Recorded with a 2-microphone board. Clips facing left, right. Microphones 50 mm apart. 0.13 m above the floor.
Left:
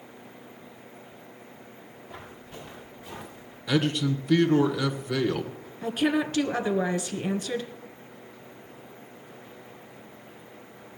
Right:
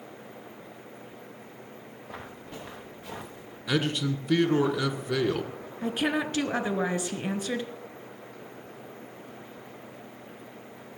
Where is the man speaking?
5° right (ahead or behind), 1.3 m.